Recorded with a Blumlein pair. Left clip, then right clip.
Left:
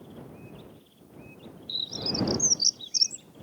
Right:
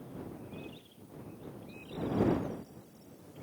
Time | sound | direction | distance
1.7 | a bird | 45° left | ?